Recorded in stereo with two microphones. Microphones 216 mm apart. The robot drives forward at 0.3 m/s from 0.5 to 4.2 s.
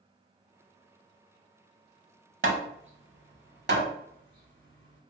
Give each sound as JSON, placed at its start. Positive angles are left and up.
{"t": 2.4, "sound": "hammering", "side_deg": -70, "distance_m": 0.6}